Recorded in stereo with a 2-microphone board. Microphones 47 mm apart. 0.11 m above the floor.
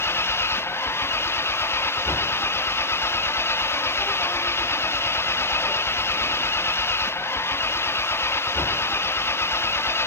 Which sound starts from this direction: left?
An engine running, at 0.0 s.